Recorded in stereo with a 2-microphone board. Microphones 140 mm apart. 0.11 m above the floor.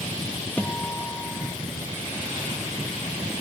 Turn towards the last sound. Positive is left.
turn(degrees=15)  # may be behind; listen again after turning